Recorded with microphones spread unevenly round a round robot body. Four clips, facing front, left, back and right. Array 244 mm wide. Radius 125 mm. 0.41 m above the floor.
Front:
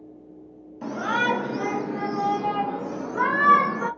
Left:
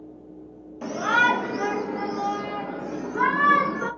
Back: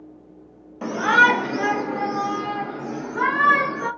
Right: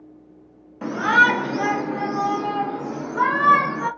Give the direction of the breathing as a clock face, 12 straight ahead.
No breathing in this recording.